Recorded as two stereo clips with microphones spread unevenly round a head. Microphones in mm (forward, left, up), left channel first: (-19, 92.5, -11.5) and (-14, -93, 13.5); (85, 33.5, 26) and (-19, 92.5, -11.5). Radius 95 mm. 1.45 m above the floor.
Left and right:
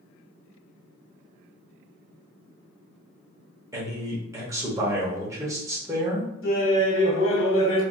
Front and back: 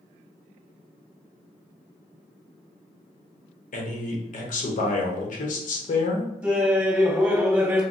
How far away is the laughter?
About 1.5 m.